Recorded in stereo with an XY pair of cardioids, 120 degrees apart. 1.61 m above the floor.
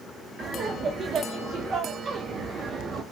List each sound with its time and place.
0.4 s laughter: 40° right, 0.6 m